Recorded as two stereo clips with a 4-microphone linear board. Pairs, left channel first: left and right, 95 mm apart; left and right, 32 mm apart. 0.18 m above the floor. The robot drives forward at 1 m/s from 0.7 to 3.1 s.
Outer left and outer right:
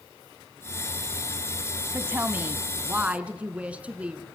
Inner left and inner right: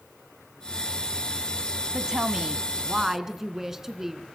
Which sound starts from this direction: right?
A woman speaking, at 1.9 s.